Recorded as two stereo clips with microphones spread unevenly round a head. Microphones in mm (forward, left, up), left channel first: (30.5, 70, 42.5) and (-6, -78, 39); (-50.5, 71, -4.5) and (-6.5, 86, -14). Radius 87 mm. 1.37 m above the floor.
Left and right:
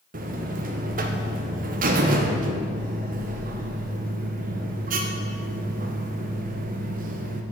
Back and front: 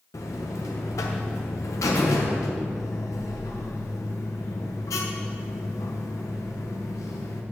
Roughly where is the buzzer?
Behind right.